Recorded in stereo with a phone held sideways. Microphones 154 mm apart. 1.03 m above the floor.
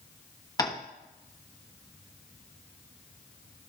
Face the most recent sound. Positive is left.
turn(degrees=25)  # may be behind; listen again after turning